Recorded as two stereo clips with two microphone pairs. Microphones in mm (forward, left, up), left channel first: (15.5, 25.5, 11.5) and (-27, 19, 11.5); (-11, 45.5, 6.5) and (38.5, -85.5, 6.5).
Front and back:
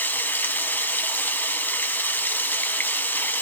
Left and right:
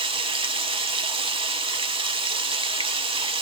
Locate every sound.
0.0 s running water: 25° right, 0.9 m